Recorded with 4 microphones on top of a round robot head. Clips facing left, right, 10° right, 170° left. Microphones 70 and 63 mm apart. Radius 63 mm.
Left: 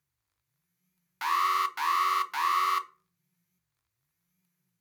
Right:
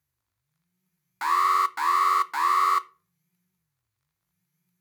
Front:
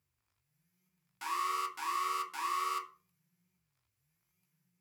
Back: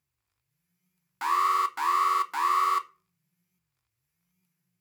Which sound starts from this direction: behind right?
An alarm, at 1.2 s.